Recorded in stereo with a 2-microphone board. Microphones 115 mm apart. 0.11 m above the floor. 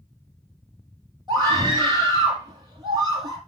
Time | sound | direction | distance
1.3 | a scream | 40° right (ahead or behind) | 3.5 m